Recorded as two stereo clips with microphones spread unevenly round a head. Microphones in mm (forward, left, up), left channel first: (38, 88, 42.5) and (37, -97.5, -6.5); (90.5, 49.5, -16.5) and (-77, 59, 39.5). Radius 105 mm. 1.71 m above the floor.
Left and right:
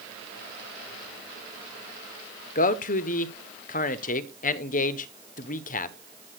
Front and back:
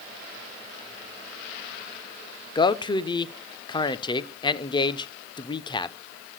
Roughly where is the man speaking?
Left.